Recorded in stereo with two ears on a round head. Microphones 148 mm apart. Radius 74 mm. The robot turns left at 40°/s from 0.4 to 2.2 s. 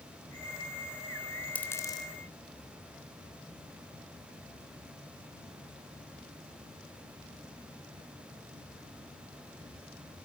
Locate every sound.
1.6 s a dropped coin: 10° left (ahead or behind), 3 m; by 2.1 s 30° left (ahead or behind), 3 m